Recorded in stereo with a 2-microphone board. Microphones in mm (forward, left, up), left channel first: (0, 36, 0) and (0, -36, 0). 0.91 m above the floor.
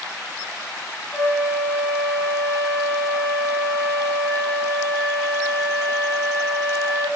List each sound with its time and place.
1.1 s a flute: 50° left (ahead or behind), 1.8 m